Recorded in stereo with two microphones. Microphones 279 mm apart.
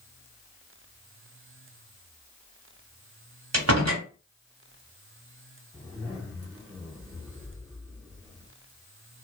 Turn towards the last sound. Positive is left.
turn(degrees=-10)  # may be behind; listen again after turning